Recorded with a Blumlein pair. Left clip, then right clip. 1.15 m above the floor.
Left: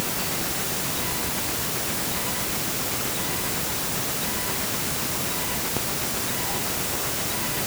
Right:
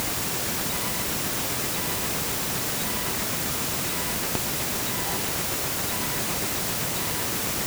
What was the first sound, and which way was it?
Only background noise.